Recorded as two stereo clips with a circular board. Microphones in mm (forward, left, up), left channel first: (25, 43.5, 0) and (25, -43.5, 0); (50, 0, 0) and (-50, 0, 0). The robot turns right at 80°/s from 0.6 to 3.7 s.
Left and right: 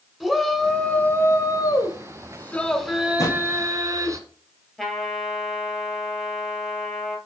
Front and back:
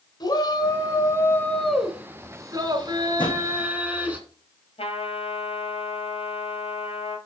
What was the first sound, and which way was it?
A shout, straight ahead.